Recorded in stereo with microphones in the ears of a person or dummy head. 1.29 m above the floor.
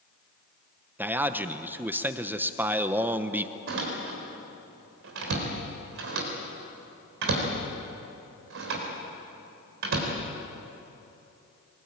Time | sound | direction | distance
1.0 | a man speaking | centre (ahead or behind) | 1.0 m
3.7 | a door slam | 75° right (ahead or behind) | 3.5 m